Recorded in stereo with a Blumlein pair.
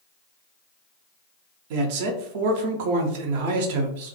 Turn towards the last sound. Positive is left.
turn(degrees=-50)